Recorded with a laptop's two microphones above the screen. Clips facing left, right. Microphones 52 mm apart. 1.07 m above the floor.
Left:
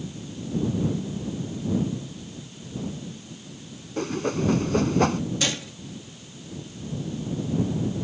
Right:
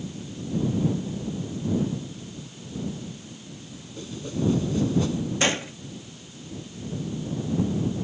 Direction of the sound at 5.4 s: 30° right (ahead or behind).